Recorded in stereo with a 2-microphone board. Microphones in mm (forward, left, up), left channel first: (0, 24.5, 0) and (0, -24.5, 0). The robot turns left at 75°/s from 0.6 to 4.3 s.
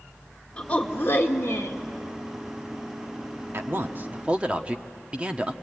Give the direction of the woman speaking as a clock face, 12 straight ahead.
7 o'clock.